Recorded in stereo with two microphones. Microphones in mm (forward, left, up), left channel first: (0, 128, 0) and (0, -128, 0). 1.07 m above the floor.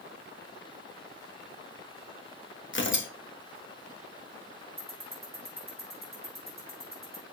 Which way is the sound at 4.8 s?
55° right (ahead or behind).